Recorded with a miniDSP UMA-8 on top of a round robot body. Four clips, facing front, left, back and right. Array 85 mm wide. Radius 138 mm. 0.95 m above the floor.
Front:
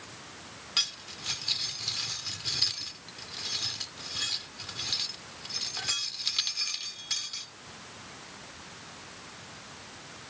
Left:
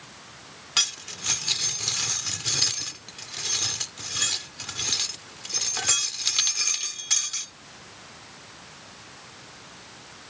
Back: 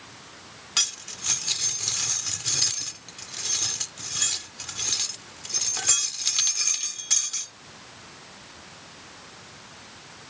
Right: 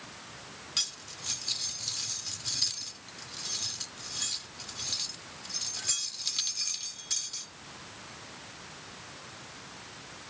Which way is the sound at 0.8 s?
110° left.